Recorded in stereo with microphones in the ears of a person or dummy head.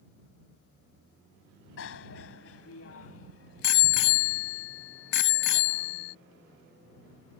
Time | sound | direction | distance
1.8 | a bicycle bell | 85° left | ?